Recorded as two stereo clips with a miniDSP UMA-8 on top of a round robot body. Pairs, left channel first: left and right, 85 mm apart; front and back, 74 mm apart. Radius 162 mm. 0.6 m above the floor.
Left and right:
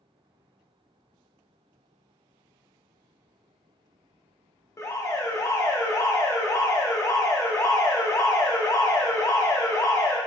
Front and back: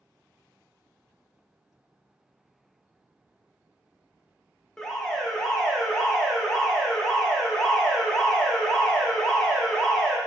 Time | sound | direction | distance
4.8 | an alarm | 75° left | 0.9 m